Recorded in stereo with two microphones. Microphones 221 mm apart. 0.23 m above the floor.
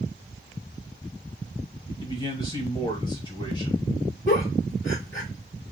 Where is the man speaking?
20° left (ahead or behind), 1.2 m.